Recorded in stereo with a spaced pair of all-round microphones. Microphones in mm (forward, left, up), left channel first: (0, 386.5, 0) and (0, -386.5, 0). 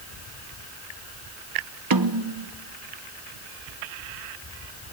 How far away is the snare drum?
About 0.9 m.